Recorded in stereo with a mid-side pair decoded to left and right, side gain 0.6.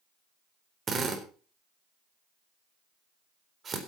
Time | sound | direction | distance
0.9 | a drill | 35° right | 4 m